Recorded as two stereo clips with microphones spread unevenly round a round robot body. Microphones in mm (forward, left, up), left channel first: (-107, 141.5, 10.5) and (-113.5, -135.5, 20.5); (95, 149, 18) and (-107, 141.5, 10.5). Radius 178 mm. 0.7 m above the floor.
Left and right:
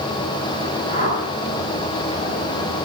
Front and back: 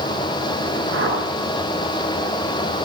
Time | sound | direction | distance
0.9 | a whoosh | 150° left | 10 m